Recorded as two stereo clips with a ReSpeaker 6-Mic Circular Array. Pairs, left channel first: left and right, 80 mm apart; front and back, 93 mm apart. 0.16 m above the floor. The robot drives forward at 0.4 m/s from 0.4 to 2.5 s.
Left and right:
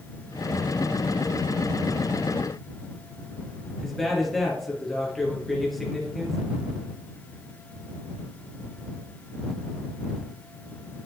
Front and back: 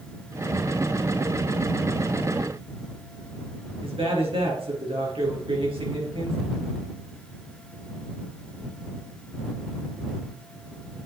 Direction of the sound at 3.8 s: Straight behind.